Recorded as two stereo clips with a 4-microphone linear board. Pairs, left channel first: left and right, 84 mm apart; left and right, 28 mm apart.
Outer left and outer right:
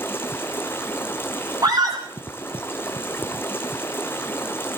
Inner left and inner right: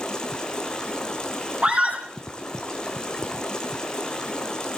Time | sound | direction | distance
0.0 | running water | 25° left (ahead or behind) | 1.7 m
1.6 | a scream | 45° right (ahead or behind) | 6.5 m